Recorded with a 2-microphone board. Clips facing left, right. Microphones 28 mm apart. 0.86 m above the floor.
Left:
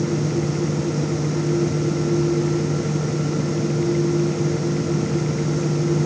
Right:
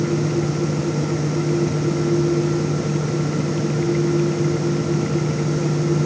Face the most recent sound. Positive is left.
No sound to turn to.